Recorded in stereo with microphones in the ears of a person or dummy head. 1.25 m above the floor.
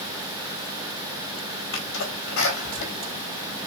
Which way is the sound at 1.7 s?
70° left (ahead or behind).